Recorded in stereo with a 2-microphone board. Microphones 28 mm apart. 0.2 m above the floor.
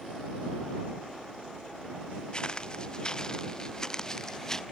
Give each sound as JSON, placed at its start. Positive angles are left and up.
{"t": 2.3, "sound": "footsteps", "side_deg": 25}